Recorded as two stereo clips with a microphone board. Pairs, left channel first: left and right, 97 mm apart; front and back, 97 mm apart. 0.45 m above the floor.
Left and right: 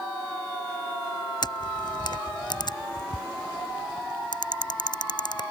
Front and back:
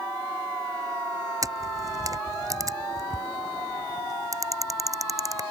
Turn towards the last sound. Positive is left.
turn(degrees=130)